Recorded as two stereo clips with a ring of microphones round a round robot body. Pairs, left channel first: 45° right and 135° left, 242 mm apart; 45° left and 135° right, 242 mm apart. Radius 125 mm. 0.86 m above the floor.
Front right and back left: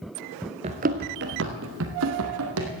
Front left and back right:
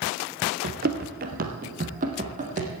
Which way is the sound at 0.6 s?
170° right.